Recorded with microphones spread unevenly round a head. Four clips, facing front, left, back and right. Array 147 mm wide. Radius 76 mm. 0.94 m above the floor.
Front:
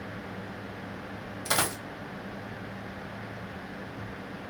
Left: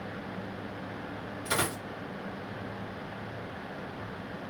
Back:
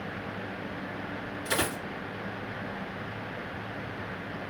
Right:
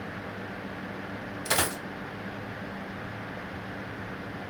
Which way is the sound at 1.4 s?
35° right.